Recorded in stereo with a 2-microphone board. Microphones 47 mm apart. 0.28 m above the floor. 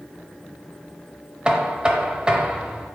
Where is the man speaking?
I don't hear a man speaking.